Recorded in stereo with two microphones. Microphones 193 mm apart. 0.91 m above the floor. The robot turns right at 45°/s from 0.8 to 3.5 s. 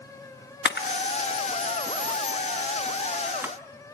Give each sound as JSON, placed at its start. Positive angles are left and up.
{"t": 0.7, "sound": "a camera shutter", "side_deg": 65, "distance_m": 1.3}